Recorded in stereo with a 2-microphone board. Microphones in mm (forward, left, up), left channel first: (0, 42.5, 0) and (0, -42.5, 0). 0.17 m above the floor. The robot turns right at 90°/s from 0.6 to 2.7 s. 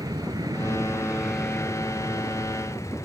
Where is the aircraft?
65° right; by 3.0 s 125° left.